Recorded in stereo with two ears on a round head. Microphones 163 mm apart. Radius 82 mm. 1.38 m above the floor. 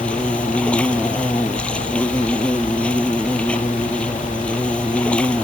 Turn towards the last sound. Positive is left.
turn(degrees=5)  # may be behind; listen again after turning